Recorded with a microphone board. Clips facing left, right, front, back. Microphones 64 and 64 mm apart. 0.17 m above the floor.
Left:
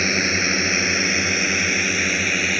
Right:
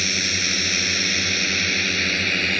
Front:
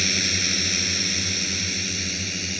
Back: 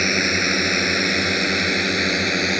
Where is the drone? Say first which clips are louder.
Left 5 dB, back 7 dB; 140° left; by 2.6 s 170° left.